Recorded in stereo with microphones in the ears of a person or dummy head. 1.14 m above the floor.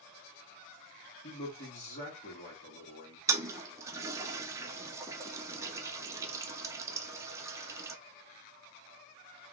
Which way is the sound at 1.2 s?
40° left (ahead or behind).